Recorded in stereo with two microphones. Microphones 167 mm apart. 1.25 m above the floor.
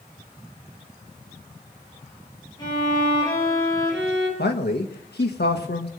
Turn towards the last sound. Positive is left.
turn(degrees=80)